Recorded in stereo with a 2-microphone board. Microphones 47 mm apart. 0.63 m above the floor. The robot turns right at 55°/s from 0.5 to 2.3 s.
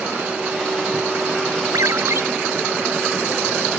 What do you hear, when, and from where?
1.7 s a ringtone: 85° right; by 2.2 s 60° right (ahead or behind)